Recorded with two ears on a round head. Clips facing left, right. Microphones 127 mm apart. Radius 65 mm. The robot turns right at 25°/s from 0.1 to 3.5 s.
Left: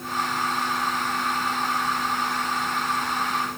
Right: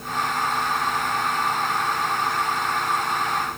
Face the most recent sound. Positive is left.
No sound to turn to.